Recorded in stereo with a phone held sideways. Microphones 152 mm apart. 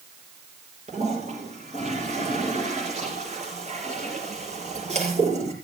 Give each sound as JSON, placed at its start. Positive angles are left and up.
{"t": 0.9, "sound": "a toilet flushing", "side_deg": -45, "distance_m": 6.0}